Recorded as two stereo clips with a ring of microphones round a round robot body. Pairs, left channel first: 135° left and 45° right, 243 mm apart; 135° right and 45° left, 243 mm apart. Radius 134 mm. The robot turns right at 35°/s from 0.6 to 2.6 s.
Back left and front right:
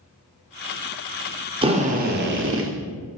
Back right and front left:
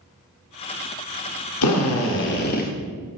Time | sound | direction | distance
1.6 | a drill | 115° right | 0.8 m